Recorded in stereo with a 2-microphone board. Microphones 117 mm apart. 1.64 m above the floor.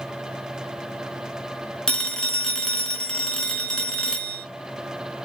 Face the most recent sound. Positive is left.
turn(degrees=5)  # may be behind; listen again after turning